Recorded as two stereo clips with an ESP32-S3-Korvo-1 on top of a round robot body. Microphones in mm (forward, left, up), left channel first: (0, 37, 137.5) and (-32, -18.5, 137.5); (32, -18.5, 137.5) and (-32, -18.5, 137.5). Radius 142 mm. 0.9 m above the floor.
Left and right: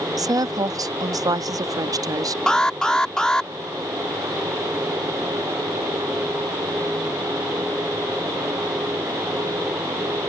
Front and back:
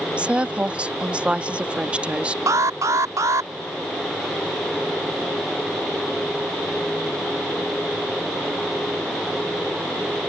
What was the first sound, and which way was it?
A woman speaking, 110° right.